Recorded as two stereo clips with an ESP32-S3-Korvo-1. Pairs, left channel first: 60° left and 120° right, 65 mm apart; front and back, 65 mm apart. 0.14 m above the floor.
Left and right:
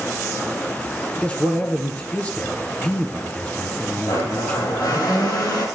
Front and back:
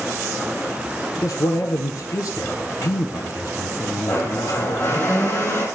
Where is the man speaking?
5° right, 2 m.